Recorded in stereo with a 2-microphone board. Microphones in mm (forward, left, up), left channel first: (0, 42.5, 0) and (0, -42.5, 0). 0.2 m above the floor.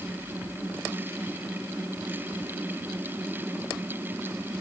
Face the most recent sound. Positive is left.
No sound to turn to.